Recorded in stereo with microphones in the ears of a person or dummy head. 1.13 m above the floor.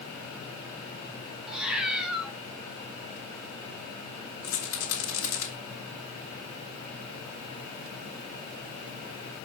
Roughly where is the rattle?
Left.